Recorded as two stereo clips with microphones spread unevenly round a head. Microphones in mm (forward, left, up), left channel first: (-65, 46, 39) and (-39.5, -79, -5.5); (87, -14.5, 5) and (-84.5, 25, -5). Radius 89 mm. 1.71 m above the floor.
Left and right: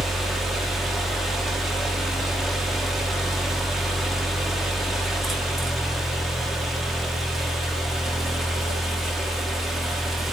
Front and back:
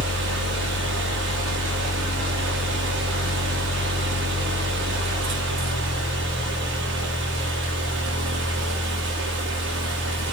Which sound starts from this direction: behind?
A fan, at 0.0 s.